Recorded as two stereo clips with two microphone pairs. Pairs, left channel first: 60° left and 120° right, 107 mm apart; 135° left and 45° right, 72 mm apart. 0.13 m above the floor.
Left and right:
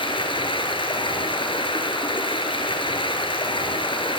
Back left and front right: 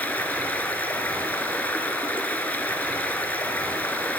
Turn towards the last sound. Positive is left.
turn(degrees=70)